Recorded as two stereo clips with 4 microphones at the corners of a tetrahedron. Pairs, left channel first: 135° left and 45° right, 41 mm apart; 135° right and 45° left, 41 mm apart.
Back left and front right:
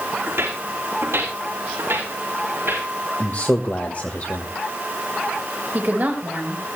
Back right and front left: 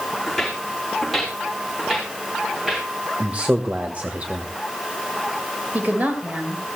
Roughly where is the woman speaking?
Ahead.